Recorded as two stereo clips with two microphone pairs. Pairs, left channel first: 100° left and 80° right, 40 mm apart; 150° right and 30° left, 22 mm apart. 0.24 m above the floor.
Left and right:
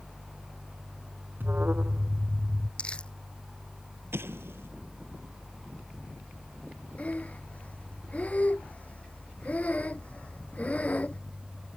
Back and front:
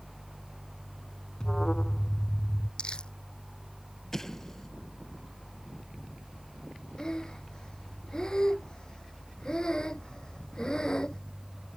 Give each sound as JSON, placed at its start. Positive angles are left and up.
{"t": 1.4, "sound": "an alarm", "azimuth_deg": -100}
{"t": 2.8, "sound": "crumpling", "azimuth_deg": 165}
{"t": 4.1, "sound": "an explosion", "azimuth_deg": -80}
{"t": 7.0, "sound": "breathing", "azimuth_deg": 155}